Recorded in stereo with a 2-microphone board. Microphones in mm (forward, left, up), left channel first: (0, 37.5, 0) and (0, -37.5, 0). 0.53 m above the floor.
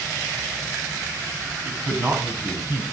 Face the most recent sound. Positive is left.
turn(degrees=-30)  # may be behind; listen again after turning